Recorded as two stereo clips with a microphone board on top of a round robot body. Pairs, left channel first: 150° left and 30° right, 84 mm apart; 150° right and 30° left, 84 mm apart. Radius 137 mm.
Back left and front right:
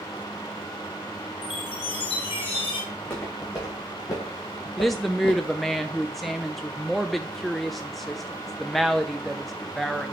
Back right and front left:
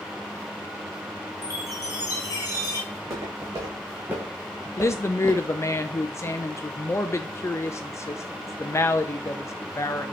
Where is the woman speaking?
120° right, 0.6 m.